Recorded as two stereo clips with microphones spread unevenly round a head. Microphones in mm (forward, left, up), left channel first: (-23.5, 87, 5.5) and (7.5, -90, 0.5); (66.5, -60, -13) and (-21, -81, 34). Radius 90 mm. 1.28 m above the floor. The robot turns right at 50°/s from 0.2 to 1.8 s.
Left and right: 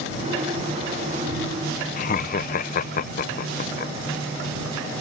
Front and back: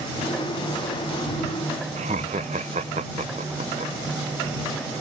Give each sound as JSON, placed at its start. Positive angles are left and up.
{"t": 2.0, "sound": "laughter", "azimuth_deg": 140}